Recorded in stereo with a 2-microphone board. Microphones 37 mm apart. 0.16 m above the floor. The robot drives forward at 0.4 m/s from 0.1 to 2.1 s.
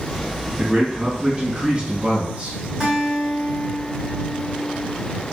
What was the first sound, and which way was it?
A man speaking, 25° right (ahead or behind).